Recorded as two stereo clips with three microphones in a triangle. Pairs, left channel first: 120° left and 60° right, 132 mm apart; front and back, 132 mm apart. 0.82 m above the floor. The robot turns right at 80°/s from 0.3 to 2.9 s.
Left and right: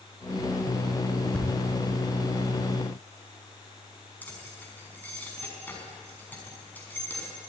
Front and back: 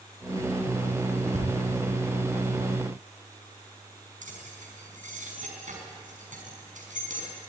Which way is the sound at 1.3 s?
160° right.